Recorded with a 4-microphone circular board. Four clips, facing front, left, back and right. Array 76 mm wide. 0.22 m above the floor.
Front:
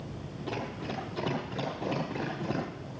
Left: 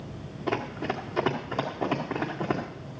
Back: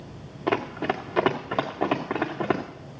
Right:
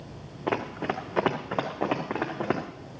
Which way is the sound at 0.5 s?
150° right.